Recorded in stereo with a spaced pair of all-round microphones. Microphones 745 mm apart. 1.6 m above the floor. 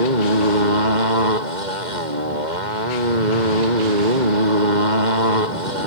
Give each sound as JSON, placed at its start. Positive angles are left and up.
{"t": 0.0, "sound": "a motorcycle", "side_deg": -65}